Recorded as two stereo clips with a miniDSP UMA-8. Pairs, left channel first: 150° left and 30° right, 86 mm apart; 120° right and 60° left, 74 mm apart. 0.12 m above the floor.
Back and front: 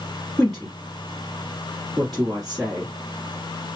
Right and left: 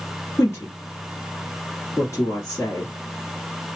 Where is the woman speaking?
125° right, 1.7 m.